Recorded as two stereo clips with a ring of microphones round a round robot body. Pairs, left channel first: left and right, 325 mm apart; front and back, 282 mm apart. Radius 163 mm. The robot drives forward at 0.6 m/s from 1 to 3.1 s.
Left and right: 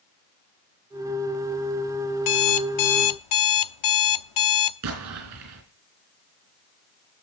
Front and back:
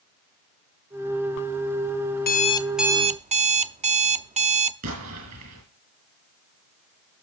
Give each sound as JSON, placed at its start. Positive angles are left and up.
{"t": 2.2, "sound": "an alarm clock", "azimuth_deg": 55, "distance_m": 0.6}
{"t": 4.8, "sound": "an explosion", "azimuth_deg": -135, "distance_m": 3.5}